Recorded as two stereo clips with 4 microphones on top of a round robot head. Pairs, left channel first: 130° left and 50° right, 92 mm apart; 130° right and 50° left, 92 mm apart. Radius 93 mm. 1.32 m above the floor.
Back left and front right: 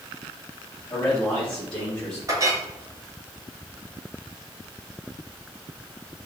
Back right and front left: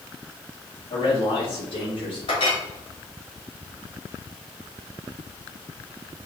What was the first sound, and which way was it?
A man speaking, 155° right.